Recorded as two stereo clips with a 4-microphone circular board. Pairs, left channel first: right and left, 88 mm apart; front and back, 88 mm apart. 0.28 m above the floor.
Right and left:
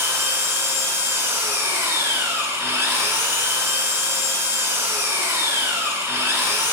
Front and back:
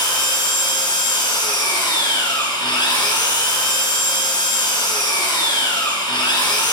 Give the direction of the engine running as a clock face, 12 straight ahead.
11 o'clock.